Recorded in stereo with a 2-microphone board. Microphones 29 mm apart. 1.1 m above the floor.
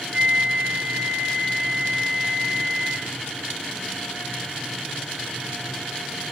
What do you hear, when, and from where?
0.1 s a flute: 40° right (ahead or behind), 1.4 m